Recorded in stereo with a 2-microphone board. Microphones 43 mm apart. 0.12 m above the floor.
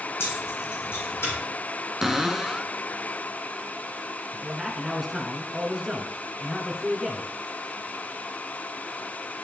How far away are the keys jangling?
About 4 m.